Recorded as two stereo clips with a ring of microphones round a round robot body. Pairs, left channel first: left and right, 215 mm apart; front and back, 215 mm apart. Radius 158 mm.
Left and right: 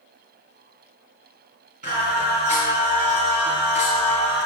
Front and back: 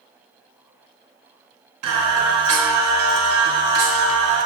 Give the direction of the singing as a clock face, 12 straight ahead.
5 o'clock.